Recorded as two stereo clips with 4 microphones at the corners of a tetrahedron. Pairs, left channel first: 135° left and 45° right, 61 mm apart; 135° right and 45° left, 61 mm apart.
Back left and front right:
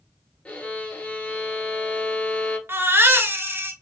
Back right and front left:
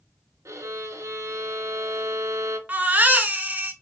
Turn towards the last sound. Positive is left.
turn(degrees=-10)